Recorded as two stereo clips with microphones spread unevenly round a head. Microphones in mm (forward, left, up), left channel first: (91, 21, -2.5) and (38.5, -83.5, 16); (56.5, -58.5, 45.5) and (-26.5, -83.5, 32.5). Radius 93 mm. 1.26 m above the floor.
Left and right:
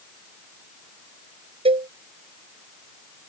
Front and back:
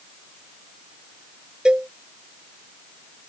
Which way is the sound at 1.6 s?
80° right.